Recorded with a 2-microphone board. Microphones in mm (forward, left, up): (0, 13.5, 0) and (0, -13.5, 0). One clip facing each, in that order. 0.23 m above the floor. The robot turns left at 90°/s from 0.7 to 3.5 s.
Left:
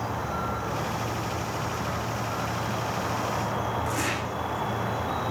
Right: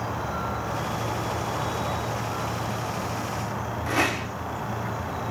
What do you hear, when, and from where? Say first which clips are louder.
0.0 s an insect: even; 10° right, 10 m; by 5.3 s 95° left, 10 m
3.9 s a rattle: right 4 dB; 40° right (ahead or behind), 8 m